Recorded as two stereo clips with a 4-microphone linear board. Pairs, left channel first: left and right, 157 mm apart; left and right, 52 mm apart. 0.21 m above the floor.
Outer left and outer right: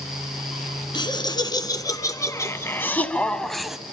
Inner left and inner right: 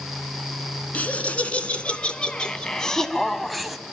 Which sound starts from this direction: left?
Laughter, at 0.9 s.